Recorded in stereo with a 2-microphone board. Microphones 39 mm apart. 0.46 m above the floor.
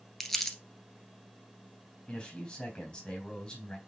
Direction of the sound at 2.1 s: 15° left (ahead or behind).